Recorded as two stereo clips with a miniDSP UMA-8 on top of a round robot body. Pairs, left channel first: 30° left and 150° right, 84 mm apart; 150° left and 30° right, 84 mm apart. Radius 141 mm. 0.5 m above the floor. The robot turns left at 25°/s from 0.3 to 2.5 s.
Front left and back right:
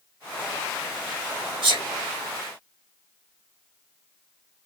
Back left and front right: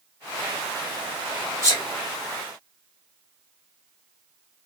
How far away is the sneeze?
About 5 m.